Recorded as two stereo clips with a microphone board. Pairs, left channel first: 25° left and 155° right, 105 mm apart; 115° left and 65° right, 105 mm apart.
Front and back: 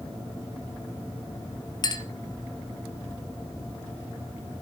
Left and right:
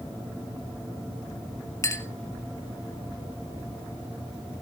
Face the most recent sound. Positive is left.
turn(degrees=60)